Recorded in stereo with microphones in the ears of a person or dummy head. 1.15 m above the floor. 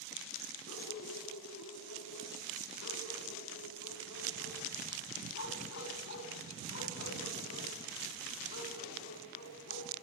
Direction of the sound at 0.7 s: 65° left (ahead or behind).